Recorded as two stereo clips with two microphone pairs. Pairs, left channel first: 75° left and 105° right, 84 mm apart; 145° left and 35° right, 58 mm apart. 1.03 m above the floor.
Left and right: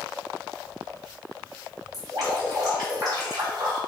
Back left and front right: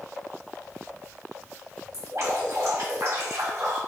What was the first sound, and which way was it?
Dripping, 75° right.